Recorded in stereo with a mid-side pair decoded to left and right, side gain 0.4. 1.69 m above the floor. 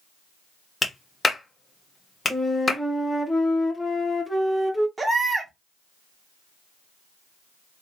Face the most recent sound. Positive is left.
turn(degrees=-30)